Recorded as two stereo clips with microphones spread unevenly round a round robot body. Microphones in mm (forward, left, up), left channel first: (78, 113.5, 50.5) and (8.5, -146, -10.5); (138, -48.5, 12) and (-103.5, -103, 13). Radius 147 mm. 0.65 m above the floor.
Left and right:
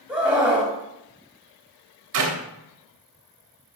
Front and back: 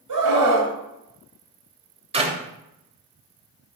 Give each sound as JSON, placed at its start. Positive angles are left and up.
{"t": 0.1, "sound": "a scream", "azimuth_deg": 170, "distance_m": 3.0}
{"t": 2.1, "sound": "a clap", "azimuth_deg": -100, "distance_m": 3.0}